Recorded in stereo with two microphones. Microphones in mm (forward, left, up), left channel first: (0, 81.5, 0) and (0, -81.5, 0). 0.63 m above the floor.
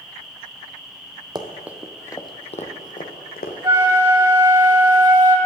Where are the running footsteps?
30° right (ahead or behind), 0.9 m; by 3.5 s 65° left (ahead or behind), 1.6 m.